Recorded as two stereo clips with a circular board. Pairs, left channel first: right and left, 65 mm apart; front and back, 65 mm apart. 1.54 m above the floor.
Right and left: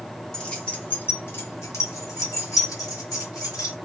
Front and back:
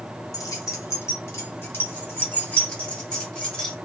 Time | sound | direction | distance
0.3 | keys jangling | 15° right | 1.0 m